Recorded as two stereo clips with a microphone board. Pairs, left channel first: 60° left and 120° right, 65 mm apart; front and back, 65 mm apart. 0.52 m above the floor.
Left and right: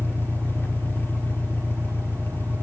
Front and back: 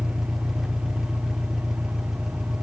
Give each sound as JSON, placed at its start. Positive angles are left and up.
{"t": 0.0, "sound": "an engine running", "azimuth_deg": 100, "distance_m": 1.2}